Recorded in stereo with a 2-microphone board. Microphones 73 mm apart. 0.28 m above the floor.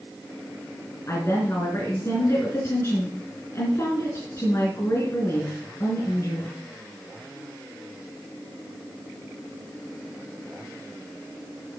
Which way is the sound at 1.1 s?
35° left (ahead or behind).